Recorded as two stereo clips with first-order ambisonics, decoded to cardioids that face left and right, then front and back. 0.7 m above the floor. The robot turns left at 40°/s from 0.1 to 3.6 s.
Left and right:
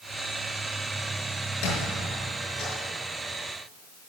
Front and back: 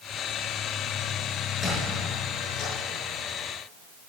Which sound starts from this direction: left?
A squeak, at 1.6 s.